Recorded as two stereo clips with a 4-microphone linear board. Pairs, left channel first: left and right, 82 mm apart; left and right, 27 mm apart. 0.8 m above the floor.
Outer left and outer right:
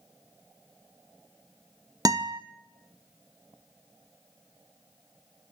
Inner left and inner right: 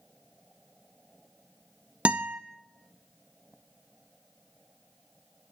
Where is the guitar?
50° right (ahead or behind), 0.7 m.